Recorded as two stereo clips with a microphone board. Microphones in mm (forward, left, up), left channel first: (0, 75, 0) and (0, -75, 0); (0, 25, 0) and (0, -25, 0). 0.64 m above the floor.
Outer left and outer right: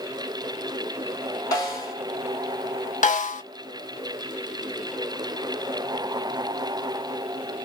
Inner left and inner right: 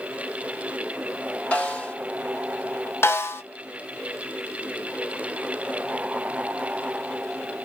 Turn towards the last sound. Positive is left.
turn(degrees=55)  # may be behind; listen again after turning